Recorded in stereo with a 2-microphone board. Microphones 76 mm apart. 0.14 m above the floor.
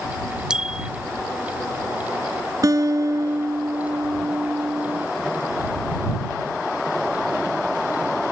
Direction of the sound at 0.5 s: 10° right (ahead or behind).